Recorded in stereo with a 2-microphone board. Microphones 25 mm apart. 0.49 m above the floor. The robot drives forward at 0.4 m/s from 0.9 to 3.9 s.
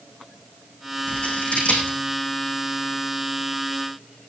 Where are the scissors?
45° left (ahead or behind), 9 m.